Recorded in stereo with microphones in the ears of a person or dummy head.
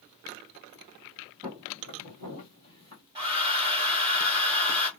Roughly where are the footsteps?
Right.